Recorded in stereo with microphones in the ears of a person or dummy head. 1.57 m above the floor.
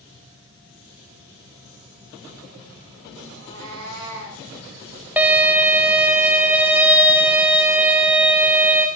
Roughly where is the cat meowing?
Right.